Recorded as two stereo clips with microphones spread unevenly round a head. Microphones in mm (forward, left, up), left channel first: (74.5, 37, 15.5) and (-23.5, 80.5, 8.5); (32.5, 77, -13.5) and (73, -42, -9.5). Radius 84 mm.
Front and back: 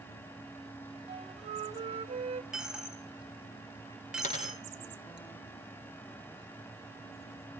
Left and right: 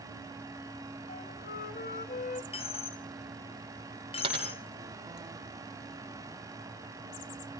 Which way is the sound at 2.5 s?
70° left.